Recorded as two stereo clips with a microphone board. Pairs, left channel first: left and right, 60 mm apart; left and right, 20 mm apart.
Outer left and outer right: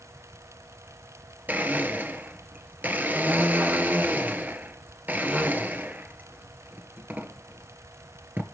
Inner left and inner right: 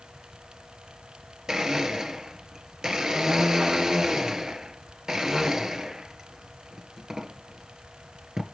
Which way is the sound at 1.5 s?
30° right (ahead or behind).